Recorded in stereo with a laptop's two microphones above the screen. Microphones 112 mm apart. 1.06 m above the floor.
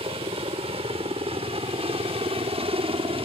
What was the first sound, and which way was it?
A helicopter, 65° right (ahead or behind).